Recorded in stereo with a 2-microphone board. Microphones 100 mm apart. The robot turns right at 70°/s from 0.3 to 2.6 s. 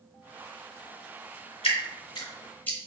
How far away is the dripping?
About 0.9 m.